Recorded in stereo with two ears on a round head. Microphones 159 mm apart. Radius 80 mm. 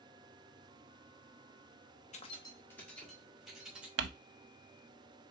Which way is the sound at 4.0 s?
70° right (ahead or behind).